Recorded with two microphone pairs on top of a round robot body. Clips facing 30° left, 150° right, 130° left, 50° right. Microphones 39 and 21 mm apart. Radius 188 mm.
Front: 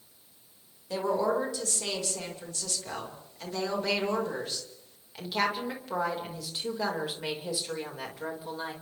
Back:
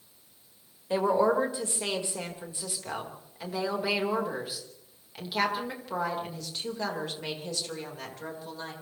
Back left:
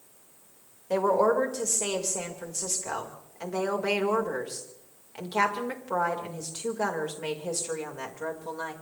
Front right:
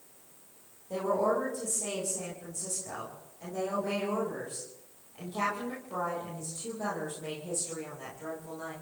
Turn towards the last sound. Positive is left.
turn(degrees=105)